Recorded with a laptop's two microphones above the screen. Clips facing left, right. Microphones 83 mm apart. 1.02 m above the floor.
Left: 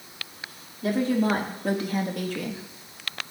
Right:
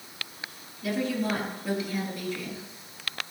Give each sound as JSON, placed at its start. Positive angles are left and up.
{"t": 0.8, "sound": "a woman speaking", "side_deg": 40, "distance_m": 3.0}